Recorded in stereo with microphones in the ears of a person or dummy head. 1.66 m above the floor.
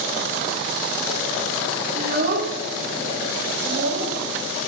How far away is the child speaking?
About 3 m.